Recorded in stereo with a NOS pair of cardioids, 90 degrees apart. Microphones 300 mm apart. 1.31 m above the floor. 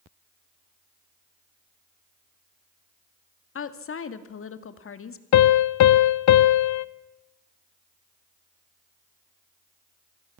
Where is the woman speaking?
45° left, 2 m.